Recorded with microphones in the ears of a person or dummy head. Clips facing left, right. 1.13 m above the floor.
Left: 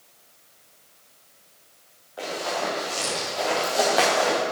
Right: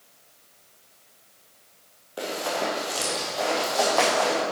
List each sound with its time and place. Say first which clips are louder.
2.2 s running footsteps: right 1 dB; 40° right (ahead or behind), 2.5 m; by 4.4 s 30° left (ahead or behind), 3 m